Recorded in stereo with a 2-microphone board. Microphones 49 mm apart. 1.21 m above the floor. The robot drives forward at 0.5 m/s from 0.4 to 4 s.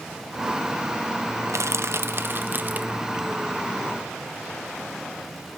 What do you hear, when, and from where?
1.5 s crushing: 75° right (ahead or behind), 0.6 m; by 3.0 s 35° right (ahead or behind), 1.0 m